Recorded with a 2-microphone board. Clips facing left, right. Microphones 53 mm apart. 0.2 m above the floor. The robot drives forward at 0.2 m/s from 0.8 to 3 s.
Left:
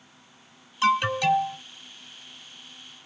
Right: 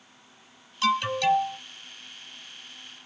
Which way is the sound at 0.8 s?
15° left (ahead or behind).